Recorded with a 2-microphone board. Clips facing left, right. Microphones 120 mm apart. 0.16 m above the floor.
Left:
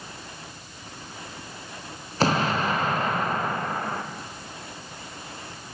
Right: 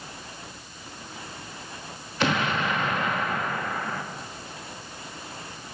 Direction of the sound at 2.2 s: 35° left (ahead or behind).